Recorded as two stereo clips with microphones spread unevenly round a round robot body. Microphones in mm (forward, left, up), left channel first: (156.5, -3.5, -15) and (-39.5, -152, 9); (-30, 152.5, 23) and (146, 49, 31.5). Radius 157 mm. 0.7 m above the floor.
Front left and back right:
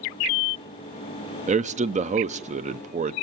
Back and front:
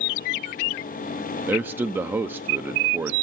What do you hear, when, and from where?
1.5 s a man speaking: 105° right, 0.6 m